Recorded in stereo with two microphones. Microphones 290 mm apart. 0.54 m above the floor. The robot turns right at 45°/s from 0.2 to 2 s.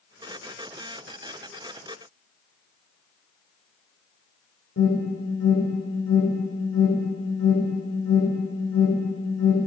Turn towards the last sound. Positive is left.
turn(degrees=55)  # may be behind; listen again after turning